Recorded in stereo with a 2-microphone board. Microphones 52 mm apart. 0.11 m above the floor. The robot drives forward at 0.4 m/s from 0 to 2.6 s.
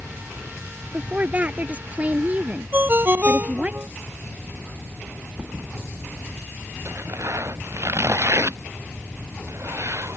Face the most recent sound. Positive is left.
turn(degrees=-65)  # may be behind; listen again after turning